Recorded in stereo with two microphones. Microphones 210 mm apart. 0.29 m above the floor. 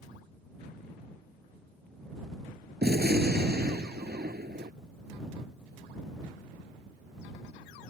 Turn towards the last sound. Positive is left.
turn(degrees=-50)  # may be behind; listen again after turning